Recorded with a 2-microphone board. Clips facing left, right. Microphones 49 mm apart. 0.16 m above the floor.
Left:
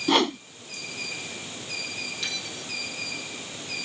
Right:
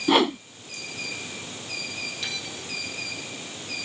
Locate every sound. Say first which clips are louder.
0.1 s a whoosh: right 2 dB; 5° right (ahead or behind)
2.2 s a bell: even; 5° right (ahead or behind)